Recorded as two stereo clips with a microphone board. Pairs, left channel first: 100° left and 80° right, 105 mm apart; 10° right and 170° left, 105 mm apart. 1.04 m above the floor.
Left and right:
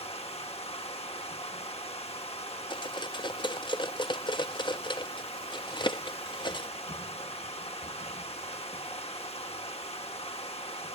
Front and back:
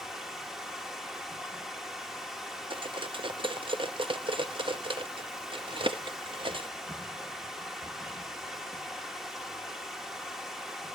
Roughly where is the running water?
Left.